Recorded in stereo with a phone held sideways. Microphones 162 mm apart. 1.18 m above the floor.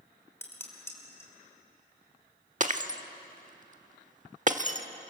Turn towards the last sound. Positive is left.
turn(degrees=-45)  # may be behind; listen again after turning